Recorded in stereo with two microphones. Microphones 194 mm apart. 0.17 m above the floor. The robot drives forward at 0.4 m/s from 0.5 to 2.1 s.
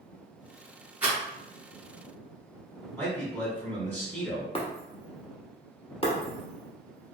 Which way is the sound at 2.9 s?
10° left (ahead or behind).